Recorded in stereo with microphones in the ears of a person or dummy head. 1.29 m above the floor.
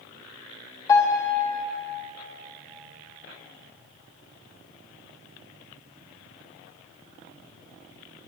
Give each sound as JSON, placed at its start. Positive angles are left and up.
{"t": 0.9, "sound": "a piano", "side_deg": 15, "distance_m": 1.0}